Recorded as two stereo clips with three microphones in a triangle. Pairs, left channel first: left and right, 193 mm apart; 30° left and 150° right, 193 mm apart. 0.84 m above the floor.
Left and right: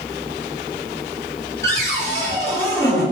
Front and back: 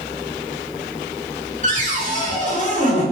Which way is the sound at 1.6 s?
165° left.